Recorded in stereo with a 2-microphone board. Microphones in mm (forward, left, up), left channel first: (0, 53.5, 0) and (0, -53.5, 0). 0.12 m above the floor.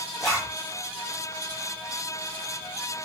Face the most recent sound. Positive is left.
turn(degrees=5)  # may be behind; listen again after turning